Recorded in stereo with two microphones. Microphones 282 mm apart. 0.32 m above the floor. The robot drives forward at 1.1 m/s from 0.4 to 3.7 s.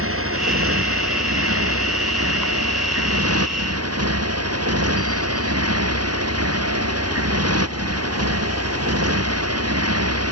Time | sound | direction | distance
0.0 | a motorcycle | 55° right (ahead or behind) | ?